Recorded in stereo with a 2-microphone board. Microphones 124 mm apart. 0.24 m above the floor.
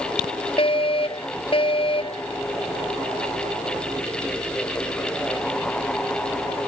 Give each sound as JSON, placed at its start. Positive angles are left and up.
{"t": 0.6, "sound": "a fire alarm", "side_deg": 45}